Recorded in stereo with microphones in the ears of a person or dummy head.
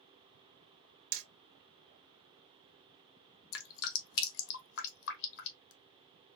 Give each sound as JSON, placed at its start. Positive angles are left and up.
{"t": 1.1, "sound": "hammering", "side_deg": -70, "distance_m": 0.7}
{"t": 3.5, "sound": "dripping", "side_deg": 75, "distance_m": 1.1}